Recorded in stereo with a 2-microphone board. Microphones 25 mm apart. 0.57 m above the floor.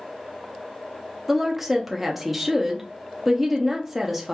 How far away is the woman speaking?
About 0.7 m.